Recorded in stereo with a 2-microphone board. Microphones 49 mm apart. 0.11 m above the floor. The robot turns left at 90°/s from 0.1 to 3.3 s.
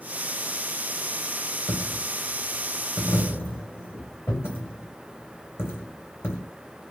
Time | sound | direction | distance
1.7 | a dropped coin | 20° right (ahead or behind) | 2.5 m